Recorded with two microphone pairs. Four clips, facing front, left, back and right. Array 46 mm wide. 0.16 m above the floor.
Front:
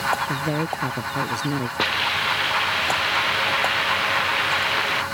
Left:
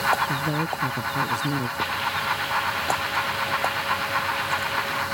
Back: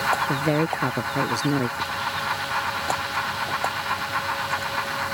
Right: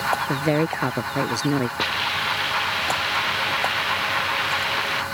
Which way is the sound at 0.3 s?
110° right.